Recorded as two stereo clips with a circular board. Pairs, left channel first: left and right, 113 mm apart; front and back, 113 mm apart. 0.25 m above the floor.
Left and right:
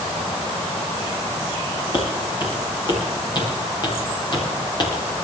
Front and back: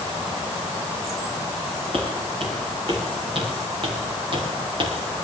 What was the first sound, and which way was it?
Footsteps, 140° left.